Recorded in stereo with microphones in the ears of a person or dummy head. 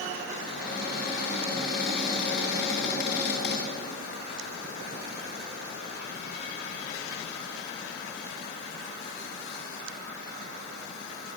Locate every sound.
0.5 s a cupboard door: 55° left (ahead or behind), 4.5 m